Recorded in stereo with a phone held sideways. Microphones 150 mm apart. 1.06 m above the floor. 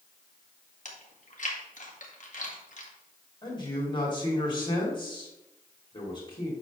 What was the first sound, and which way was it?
Chewing, 55° left (ahead or behind).